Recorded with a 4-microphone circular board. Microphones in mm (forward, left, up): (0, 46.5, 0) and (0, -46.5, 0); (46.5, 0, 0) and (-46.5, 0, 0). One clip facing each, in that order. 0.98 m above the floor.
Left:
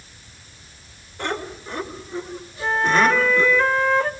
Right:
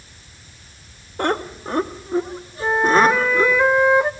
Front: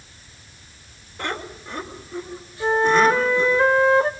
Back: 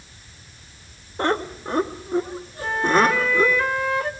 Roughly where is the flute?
Ahead right.